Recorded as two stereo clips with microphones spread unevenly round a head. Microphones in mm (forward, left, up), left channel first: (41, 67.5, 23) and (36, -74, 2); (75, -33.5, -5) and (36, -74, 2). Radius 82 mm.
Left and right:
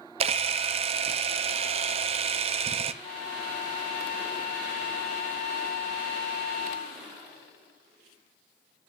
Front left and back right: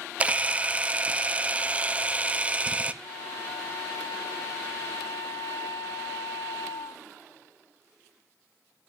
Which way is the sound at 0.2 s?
115° right.